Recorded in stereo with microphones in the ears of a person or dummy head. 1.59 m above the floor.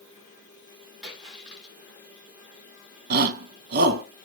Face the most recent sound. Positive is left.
turn(degrees=-55)  # may be behind; listen again after turning